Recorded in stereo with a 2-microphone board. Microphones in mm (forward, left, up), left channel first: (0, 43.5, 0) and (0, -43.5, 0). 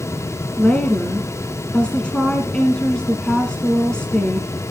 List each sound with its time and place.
0.6 s a woman speaking: 10° left (ahead or behind), 1.5 m